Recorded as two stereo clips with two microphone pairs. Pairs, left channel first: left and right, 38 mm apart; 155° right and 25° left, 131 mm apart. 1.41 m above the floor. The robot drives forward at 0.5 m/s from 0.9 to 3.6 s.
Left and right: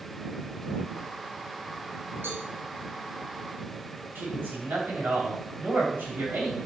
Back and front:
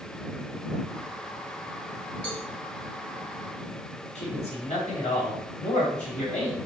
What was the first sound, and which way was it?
A cowbell, 105° right.